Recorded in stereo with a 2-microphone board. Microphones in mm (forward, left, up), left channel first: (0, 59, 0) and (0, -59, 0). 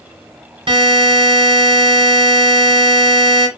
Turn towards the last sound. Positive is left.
turn(degrees=-50)  # may be behind; listen again after turning